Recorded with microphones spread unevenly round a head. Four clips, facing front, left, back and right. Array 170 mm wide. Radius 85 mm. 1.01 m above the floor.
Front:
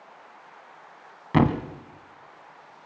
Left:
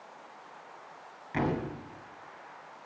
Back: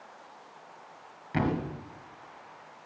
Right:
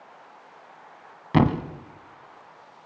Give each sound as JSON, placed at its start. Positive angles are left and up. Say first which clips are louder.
{"t": 1.3, "sound": "a thud", "louder": "right 9 dB, front 7 dB", "azimuth_deg": -40, "distance_m": 1.2}